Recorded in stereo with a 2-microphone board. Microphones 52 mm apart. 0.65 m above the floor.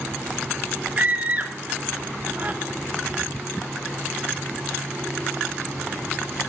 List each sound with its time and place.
1.0 s a scream: 30° right (ahead or behind), 1.8 m